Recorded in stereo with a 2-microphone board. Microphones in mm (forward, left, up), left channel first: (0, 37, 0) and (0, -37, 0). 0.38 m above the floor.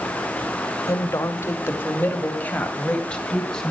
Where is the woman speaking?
45° left (ahead or behind), 2.0 m; by 3.7 s 10° left (ahead or behind), 3 m.